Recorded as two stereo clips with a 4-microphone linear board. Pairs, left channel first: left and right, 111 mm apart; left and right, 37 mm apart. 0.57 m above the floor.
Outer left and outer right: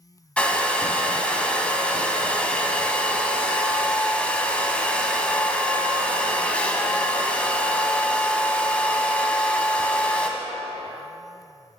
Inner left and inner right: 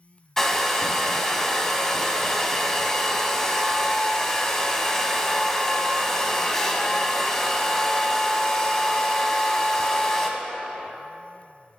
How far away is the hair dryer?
About 0.5 m.